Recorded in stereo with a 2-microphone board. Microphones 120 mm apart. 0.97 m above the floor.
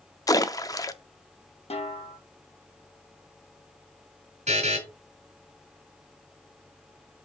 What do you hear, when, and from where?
0.3 s a splash: 30° left (ahead or behind), 0.5 m
1.7 s a snare drum: 60° left (ahead or behind), 1.2 m
4.5 s a buzzer: 70° right (ahead or behind), 2.5 m